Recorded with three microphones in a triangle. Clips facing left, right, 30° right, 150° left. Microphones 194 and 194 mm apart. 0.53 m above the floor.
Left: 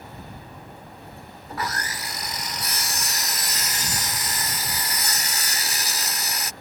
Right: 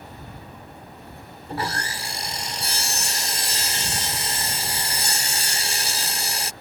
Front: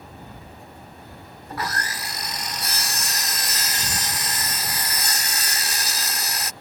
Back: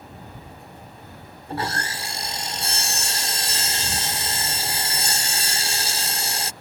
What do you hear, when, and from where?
1.5 s sawing: 145° right